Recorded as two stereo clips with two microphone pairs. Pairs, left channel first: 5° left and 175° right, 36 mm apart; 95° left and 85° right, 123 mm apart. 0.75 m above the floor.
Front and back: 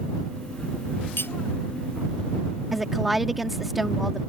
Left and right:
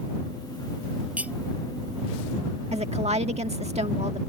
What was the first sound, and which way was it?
Cutlery clinking, 5° right.